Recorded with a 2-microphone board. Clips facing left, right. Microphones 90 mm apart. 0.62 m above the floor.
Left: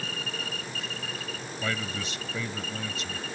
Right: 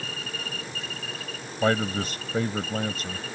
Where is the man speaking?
45° right (ahead or behind).